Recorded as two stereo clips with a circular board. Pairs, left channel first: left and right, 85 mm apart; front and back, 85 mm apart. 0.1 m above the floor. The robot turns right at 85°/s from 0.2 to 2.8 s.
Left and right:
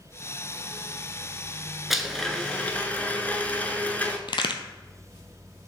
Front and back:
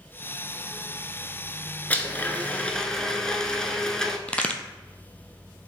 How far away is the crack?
About 0.5 m.